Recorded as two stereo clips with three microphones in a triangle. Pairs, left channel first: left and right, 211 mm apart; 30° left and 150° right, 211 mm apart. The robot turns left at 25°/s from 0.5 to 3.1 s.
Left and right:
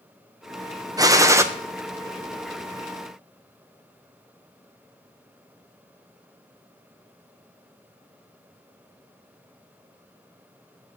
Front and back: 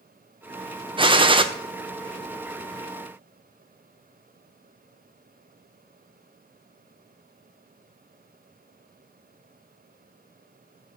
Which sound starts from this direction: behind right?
A gunshot, at 1.0 s.